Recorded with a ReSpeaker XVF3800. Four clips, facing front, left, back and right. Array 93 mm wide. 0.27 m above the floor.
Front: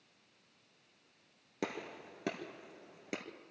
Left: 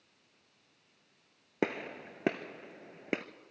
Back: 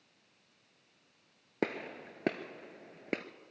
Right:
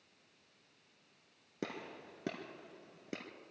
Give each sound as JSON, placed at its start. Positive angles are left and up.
{"t": 1.6, "sound": "a gunshot", "azimuth_deg": 125, "distance_m": 0.9}